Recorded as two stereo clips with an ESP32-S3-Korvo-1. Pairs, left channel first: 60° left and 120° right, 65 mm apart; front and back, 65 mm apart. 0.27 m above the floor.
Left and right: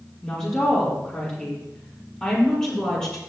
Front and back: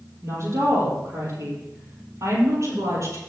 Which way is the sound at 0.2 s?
140° left.